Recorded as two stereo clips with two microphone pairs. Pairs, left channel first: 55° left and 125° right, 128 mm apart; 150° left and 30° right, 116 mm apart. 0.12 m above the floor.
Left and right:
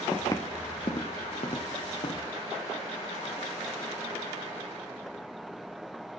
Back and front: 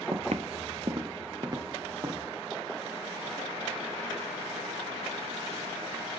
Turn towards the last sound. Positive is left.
turn(degrees=30)